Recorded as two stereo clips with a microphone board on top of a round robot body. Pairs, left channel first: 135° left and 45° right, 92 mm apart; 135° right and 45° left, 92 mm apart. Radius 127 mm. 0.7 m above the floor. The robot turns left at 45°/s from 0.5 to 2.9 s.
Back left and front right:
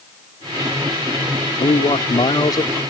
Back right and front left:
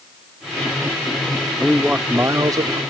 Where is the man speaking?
135° left; by 2.8 s 80° left.